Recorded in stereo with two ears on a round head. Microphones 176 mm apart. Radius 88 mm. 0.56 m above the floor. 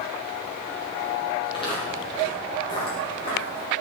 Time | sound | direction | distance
1.4 | footsteps | 25° left (ahead or behind) | 10 m